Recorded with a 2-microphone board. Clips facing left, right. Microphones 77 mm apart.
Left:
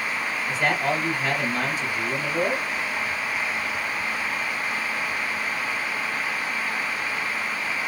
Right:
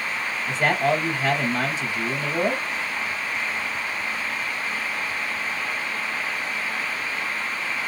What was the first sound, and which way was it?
A man speaking, 20° right (ahead or behind).